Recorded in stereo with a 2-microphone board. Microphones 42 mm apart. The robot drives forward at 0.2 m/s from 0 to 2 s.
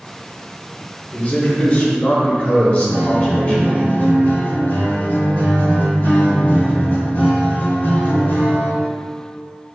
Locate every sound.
1.1 s a man speaking: 35° left (ahead or behind), 0.8 m; by 3.9 s 40° left (ahead or behind), 0.8 m
2.9 s a guitar: 65° left (ahead or behind), 1.3 m